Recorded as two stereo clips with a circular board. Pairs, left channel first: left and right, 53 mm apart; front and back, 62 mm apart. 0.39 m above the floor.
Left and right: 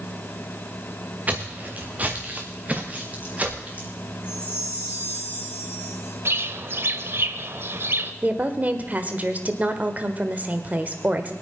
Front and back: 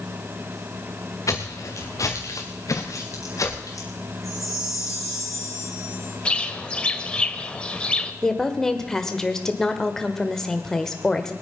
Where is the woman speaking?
75° right, 1.5 m.